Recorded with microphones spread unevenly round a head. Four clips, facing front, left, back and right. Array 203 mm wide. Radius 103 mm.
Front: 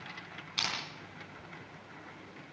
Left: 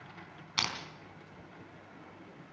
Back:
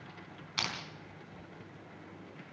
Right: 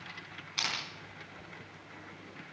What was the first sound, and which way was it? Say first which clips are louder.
Crushing: left 2 dB, even; 75° left.